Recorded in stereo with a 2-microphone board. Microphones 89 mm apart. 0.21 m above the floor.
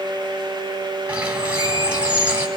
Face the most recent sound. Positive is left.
turn(degrees=-15)  # may be behind; listen again after turning